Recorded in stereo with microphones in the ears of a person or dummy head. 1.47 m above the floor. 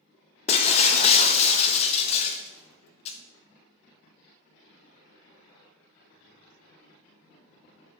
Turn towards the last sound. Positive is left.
turn(degrees=40)  # may be behind; listen again after turning